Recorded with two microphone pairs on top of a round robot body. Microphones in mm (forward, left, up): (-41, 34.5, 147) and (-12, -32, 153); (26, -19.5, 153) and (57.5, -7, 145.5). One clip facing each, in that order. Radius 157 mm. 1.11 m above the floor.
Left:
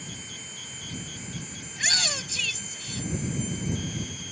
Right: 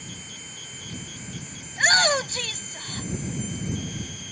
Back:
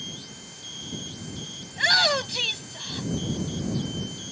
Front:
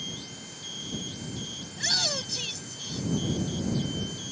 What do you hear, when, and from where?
1.7 s a shout: 110° right